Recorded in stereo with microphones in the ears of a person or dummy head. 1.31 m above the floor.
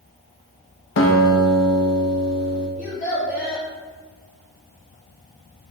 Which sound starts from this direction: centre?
A child speaking, at 2.8 s.